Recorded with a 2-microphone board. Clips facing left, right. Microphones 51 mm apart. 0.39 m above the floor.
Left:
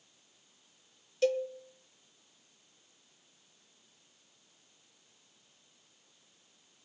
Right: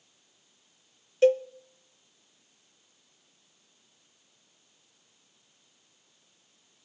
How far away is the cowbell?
About 0.6 m.